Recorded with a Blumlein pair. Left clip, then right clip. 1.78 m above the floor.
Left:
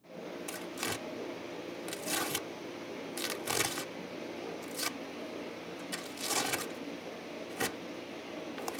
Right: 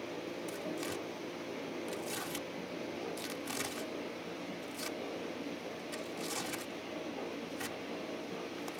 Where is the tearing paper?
65° left.